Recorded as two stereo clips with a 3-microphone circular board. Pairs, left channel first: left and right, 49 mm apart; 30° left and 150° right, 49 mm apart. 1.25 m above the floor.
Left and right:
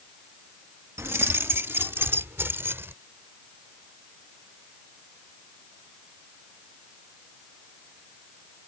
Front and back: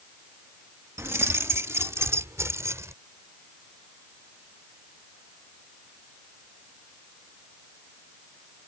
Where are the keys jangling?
120° right; by 2.9 s 130° right.